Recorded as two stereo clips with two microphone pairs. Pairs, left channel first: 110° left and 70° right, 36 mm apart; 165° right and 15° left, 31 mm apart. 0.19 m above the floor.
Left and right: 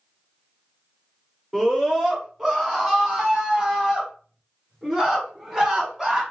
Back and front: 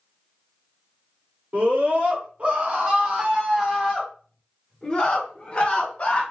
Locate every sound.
1.5 s a scream: 5° left, 2.5 m; by 6.2 s 140° right, 2 m